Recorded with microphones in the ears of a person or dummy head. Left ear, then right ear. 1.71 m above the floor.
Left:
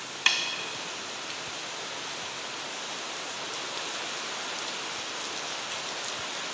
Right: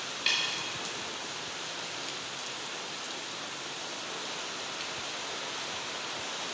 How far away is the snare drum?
About 0.6 m.